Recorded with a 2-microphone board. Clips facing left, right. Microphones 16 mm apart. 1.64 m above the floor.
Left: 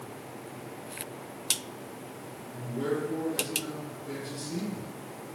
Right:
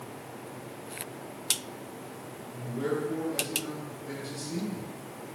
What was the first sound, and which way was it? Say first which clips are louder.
A man speaking: even; 25° right (ahead or behind).